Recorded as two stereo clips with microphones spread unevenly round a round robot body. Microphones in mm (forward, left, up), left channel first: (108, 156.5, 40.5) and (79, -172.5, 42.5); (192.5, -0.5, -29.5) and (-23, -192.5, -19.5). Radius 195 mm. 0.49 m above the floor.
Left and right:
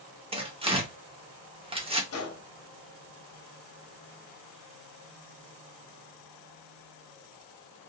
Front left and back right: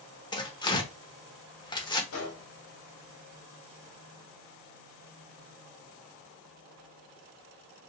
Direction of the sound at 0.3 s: 25° right.